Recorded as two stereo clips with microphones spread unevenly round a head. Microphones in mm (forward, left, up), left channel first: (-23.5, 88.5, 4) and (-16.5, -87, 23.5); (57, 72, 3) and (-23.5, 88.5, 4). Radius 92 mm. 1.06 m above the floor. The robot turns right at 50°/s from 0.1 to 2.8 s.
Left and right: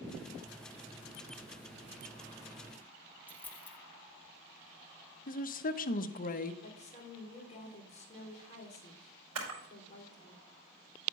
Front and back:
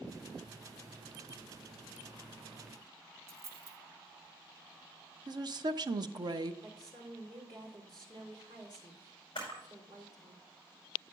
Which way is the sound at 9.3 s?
75° right.